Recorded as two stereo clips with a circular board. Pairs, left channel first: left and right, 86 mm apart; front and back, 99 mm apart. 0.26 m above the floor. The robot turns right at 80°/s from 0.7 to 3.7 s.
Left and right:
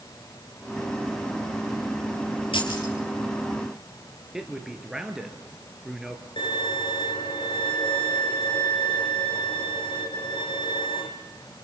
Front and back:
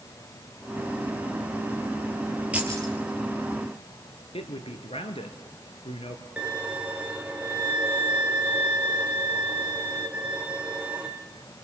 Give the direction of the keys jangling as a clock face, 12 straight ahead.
9 o'clock.